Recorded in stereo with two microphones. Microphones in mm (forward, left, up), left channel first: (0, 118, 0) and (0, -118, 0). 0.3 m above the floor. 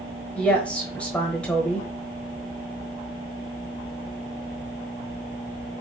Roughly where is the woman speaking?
Centre.